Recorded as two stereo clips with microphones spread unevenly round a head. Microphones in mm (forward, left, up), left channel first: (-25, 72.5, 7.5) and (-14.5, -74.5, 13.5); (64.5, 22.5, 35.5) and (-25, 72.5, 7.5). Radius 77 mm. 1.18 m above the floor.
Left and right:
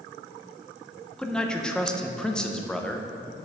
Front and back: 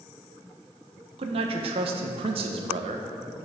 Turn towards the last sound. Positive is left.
turn(degrees=180)